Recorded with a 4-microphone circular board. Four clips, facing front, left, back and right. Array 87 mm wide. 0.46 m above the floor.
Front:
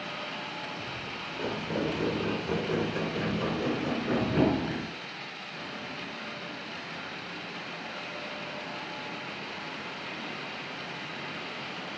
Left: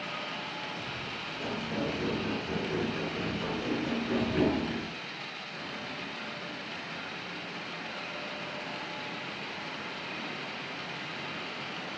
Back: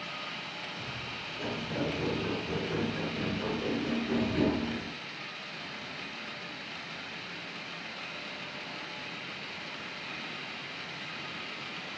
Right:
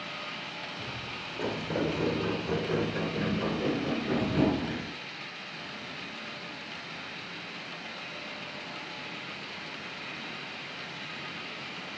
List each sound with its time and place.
0.8 s footsteps: 65° right, 2.5 m; by 4.9 s 10° right, 2 m